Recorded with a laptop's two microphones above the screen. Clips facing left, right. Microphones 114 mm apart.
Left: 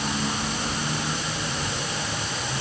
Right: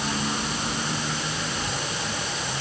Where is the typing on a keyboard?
No typing on a keyboard in this recording.